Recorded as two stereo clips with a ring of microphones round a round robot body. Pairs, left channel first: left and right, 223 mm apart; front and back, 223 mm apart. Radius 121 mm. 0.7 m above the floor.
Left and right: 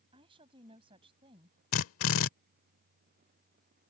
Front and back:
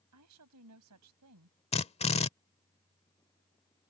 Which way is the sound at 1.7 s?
65° left.